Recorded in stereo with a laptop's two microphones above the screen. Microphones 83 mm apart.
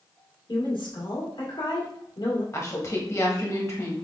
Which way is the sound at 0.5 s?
80° left.